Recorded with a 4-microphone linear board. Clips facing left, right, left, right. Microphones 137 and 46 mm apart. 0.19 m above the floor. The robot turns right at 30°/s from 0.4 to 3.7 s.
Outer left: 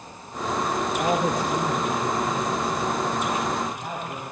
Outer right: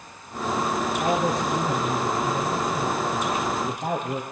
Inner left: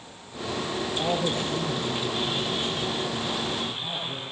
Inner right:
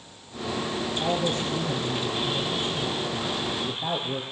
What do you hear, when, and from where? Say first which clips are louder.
1.0 s a man speaking: even, inner right 1 dB; 150° left, 4.5 m; by 4.2 s 130° right, 4.5 m